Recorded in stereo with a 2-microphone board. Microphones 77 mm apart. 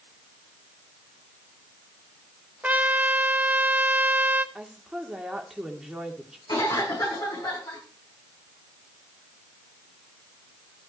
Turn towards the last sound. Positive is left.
turn(degrees=60)  # may be behind; listen again after turning